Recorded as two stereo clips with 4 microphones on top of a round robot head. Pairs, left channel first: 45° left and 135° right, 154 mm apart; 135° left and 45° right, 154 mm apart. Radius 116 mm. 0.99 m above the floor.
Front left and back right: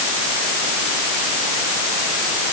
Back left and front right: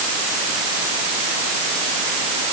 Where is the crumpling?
I don't hear crumpling.